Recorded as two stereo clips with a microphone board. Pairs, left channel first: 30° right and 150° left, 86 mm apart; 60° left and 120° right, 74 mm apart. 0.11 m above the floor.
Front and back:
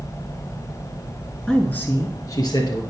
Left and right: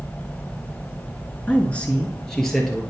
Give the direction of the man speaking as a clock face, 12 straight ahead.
10 o'clock.